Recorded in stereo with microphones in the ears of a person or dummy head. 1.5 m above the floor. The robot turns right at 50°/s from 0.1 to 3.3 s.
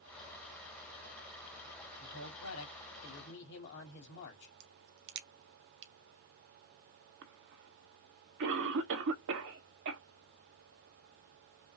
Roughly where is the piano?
I don't hear a piano.